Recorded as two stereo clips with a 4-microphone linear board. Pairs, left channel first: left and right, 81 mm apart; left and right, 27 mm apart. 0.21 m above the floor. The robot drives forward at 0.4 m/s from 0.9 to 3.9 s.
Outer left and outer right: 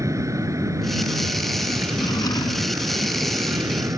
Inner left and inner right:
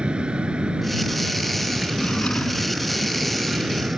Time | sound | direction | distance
0.0 | an aircraft | 40° right (ahead or behind) | ?
1.9 | a drawer | 55° left (ahead or behind) | ?